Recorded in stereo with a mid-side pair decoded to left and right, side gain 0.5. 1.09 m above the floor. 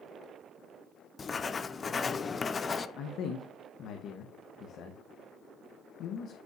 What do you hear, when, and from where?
1.2 s writing: 35° left, 0.5 m
3.0 s a man speaking: 70° left, 1.0 m